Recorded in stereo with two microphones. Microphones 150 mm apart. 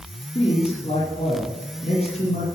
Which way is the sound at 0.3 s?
40° left (ahead or behind).